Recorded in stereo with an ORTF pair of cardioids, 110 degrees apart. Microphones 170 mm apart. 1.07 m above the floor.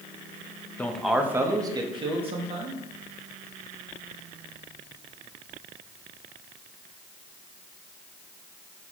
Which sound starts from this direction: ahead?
A man speaking, at 0.8 s.